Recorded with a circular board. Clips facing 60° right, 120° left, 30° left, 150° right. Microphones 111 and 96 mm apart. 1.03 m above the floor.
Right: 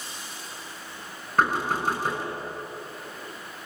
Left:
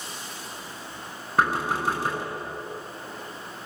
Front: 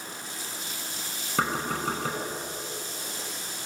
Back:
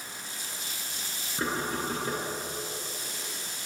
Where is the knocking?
35° left, 6 m.